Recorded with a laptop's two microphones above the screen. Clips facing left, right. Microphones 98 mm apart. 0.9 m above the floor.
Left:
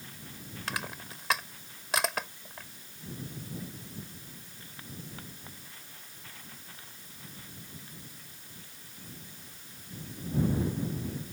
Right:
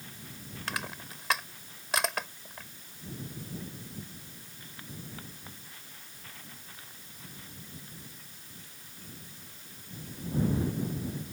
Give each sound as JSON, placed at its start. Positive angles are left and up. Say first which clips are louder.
{"t": 0.7, "sound": "crushing", "louder": "even", "side_deg": 0}